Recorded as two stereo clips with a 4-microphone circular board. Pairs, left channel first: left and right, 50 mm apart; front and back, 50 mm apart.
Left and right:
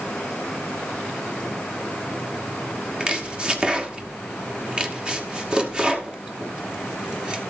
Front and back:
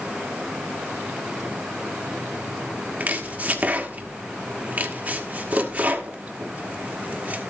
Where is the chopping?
150° right, 1.3 m.